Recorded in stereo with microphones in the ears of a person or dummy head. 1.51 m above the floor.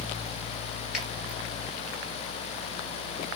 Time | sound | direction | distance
0.9 | a finger snap | 5° right (ahead or behind) | 3.5 m